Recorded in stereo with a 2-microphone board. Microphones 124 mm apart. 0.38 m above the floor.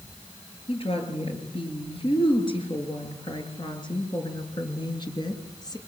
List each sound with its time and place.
0.7 s a woman speaking: 50° left (ahead or behind), 7.5 m; by 5.8 s 35° left (ahead or behind), 5 m